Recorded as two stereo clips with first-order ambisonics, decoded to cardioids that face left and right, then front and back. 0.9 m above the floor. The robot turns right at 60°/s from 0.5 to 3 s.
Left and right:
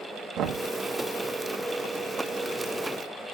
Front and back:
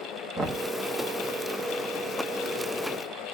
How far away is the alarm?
No alarm in this recording.